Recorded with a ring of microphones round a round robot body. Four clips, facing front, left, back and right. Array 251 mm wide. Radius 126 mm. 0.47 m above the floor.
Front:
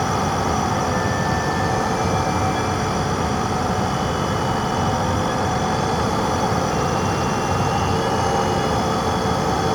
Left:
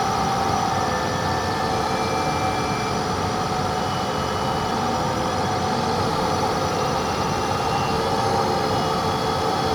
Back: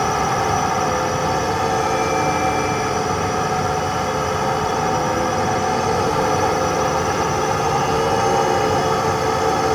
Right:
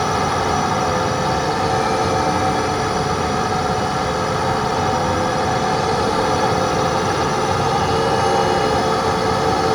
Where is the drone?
130° right.